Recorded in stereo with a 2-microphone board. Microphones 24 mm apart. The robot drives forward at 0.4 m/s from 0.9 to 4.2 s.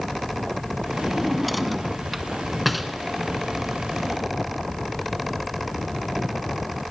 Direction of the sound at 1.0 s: Centre (ahead or behind).